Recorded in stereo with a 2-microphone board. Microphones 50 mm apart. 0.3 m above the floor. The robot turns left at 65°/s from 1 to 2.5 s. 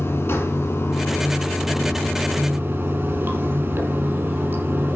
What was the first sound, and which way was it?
Running water, 55° left.